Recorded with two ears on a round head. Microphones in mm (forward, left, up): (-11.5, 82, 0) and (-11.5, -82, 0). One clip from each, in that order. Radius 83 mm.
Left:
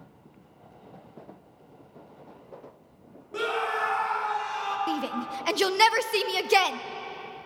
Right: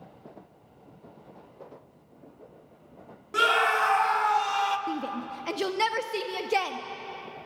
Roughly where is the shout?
Left.